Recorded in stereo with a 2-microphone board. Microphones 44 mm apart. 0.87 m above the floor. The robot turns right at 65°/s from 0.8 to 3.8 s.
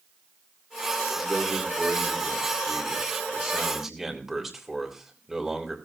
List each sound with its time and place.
1.2 s a man speaking: 175° right, 3.5 m; by 5.8 s 5° right, 3.5 m